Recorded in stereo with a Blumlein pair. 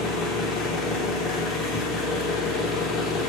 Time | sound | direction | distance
0.0 | an engine running | 30° left | 0.7 m